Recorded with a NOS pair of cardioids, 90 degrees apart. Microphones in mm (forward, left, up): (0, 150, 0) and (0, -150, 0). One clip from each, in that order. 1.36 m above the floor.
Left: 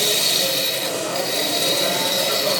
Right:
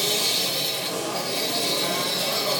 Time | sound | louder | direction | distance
0.0 | a machine running | left 4 dB | 65° left | 1.1 m